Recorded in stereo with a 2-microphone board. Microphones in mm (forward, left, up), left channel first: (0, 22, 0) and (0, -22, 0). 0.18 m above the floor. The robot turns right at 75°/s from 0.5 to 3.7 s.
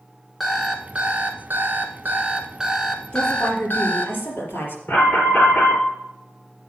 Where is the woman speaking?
35° left, 4 m; by 4.8 s 75° left, 4 m.